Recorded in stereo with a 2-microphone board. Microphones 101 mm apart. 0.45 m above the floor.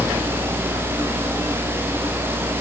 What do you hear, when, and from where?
Only background noise.